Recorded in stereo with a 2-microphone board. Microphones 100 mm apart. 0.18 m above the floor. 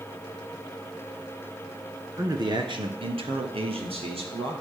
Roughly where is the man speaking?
Right.